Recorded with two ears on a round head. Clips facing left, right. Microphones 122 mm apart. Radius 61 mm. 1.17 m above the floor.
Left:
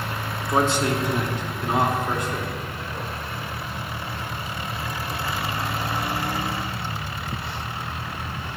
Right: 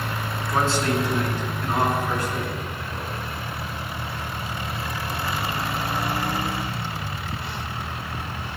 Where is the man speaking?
15° left (ahead or behind), 1.5 m; by 3.1 s 20° left (ahead or behind), 3.5 m.